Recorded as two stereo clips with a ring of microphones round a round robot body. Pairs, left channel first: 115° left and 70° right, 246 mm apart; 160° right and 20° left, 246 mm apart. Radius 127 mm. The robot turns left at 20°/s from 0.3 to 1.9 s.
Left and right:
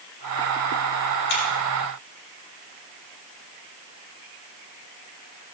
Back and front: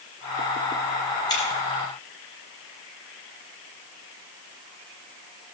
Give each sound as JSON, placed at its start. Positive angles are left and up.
{"t": 1.3, "sound": "scissors", "azimuth_deg": 130, "distance_m": 6.0}